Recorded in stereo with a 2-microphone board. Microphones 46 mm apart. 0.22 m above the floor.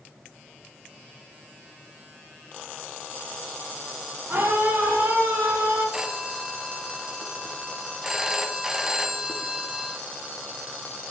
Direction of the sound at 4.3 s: 55° right (ahead or behind).